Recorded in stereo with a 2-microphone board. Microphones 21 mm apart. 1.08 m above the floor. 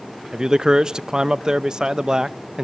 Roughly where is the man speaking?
Right.